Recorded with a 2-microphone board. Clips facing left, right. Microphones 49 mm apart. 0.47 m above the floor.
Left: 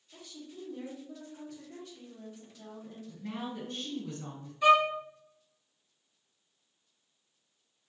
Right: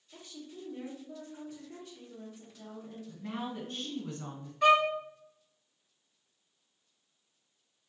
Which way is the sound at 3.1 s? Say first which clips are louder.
Even; 55° right (ahead or behind).